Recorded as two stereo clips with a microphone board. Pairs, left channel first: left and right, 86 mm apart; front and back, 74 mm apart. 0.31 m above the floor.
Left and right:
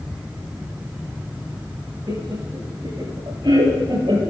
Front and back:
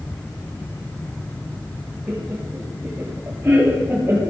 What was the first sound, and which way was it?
Laughter, 115° right.